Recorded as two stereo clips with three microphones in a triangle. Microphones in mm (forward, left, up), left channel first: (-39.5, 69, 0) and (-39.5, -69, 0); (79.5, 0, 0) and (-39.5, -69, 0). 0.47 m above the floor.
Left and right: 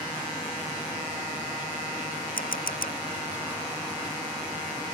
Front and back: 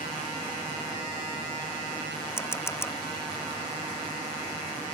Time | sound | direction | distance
2.4 | a camera shutter | 100° left | ?